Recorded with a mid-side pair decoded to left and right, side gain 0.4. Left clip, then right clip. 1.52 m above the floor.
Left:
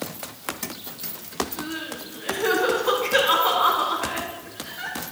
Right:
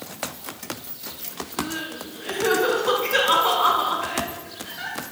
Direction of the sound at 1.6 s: Straight ahead.